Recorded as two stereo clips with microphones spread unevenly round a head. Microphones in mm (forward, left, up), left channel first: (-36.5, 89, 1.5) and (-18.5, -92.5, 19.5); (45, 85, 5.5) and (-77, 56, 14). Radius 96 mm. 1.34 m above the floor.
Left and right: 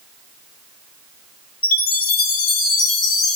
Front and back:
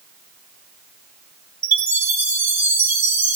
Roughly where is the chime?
Behind left.